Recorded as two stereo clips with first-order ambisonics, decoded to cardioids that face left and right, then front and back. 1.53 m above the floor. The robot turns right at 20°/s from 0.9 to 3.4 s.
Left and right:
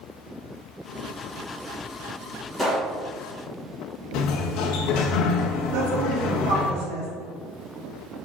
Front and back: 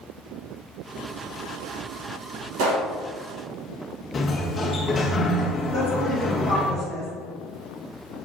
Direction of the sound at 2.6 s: 175° right.